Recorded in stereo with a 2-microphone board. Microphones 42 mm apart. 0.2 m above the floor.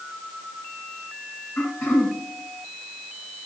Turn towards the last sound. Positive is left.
turn(degrees=60)  # may be behind; listen again after turning